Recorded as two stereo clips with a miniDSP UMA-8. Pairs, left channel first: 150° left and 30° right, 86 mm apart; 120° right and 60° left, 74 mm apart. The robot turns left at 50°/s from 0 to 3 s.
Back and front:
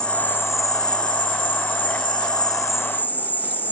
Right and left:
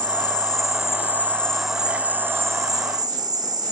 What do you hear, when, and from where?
0.0 s an insect: 130° right, 1.6 m; by 3.7 s 80° left, 1.6 m